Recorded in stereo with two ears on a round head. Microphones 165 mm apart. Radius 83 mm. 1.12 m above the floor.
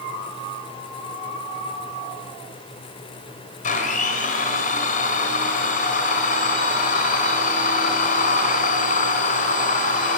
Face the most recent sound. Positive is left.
turn(degrees=45)  # may be behind; listen again after turning